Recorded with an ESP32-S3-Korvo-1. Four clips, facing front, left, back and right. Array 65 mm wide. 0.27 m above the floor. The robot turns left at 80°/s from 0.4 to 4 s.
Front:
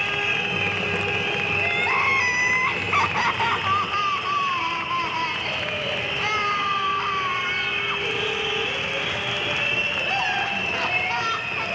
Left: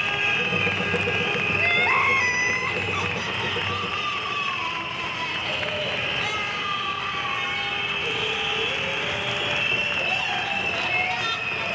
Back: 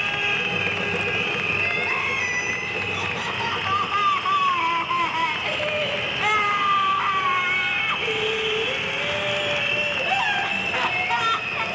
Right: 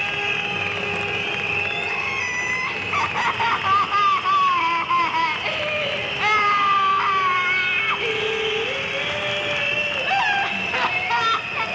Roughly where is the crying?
Left.